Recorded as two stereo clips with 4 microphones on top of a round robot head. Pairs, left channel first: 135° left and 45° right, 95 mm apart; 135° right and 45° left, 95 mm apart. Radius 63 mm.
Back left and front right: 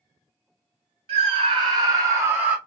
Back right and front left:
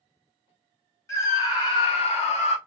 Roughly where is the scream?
Right.